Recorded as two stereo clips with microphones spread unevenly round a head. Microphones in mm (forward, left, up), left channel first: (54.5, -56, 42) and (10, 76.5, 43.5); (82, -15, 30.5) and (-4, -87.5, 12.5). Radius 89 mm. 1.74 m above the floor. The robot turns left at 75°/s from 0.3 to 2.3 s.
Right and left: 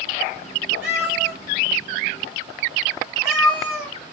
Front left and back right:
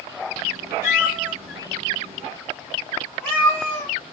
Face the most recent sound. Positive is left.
turn(degrees=45)